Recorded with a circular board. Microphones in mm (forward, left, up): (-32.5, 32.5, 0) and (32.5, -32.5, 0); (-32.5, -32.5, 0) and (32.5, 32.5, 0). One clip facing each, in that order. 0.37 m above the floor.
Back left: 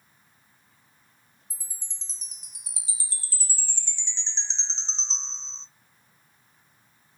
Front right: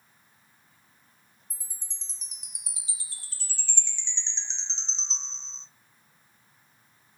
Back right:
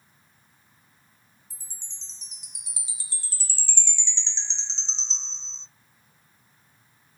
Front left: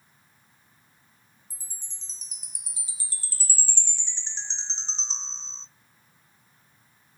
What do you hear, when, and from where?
1.5 s a chime: 85° left, 0.5 m